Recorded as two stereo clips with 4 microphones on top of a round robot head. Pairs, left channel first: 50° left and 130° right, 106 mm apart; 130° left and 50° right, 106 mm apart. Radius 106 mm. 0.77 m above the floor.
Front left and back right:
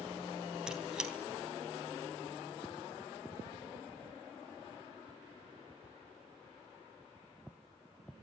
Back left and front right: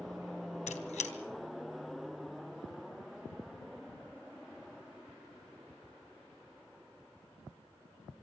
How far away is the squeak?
About 3 m.